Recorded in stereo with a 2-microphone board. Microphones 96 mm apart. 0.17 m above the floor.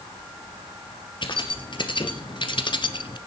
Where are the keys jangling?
55° left (ahead or behind), 2 m; by 3.2 s 50° left (ahead or behind), 1.1 m.